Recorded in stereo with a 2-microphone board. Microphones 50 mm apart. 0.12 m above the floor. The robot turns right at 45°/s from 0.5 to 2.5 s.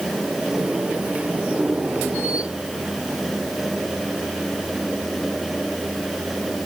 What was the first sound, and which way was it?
Only background noise.